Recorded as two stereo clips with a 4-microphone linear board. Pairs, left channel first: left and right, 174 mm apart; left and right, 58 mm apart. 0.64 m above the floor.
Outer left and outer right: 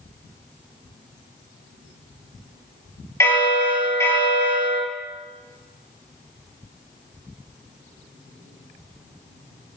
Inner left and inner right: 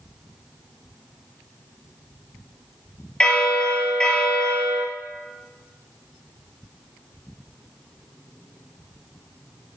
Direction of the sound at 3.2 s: 15° left (ahead or behind).